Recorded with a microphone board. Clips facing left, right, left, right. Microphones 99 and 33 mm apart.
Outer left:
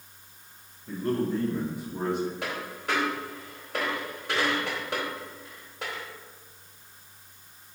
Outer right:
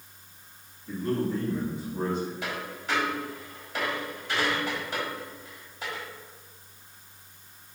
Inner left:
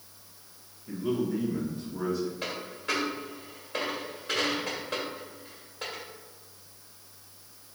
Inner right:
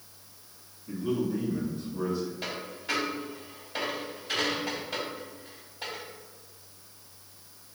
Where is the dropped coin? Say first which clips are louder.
Outer left 1 dB, inner left 1 dB; 65° left (ahead or behind), 1.8 m.